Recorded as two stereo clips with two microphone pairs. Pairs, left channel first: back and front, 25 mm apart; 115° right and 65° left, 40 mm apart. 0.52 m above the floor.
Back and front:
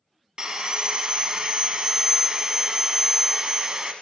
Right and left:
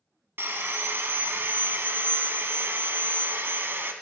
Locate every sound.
0.4 s sawing: 55° left, 1.1 m